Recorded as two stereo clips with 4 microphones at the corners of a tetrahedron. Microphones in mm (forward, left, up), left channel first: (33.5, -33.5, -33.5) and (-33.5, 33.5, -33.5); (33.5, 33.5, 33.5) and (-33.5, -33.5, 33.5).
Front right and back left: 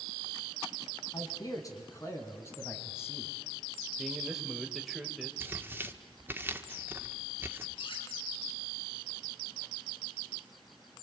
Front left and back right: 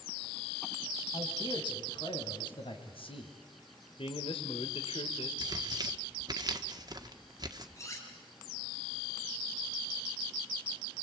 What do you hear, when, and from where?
1.1 s a man speaking: 5° left, 4 m; by 3.3 s 25° left, 4 m
4.0 s a man speaking: 45° left, 3 m
5.4 s tearing paper: 165° right, 1.6 m
7.8 s cutlery clinking: 15° right, 5.5 m